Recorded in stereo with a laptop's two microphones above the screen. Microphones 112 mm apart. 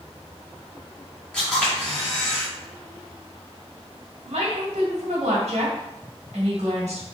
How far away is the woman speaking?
About 1.7 m.